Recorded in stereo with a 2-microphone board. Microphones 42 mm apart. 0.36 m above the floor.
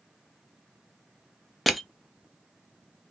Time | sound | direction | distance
1.7 | crushing | 5° right (ahead or behind) | 0.5 m